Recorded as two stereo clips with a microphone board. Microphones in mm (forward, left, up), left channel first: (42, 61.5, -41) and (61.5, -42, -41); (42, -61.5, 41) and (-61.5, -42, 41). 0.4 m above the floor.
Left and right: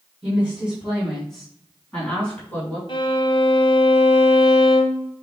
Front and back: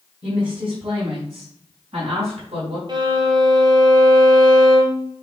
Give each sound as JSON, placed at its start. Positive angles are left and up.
{"t": 0.2, "sound": "a woman speaking", "azimuth_deg": -160, "distance_m": 3.0}
{"t": 2.9, "sound": "a violin", "azimuth_deg": 130, "distance_m": 1.2}